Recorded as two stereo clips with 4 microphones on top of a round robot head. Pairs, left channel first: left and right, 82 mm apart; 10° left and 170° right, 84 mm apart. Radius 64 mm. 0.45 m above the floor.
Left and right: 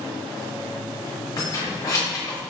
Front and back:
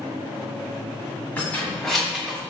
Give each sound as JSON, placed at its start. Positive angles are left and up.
{"t": 1.4, "sound": "keys jangling", "azimuth_deg": 70, "distance_m": 1.1}